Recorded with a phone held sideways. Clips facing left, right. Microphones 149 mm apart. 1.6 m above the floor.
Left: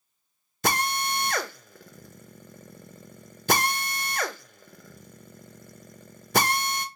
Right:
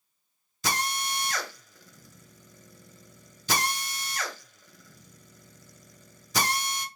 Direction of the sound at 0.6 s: 55° left (ahead or behind).